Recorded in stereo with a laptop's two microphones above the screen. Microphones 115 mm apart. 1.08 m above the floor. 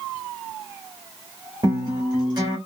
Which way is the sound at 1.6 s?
40° right (ahead or behind).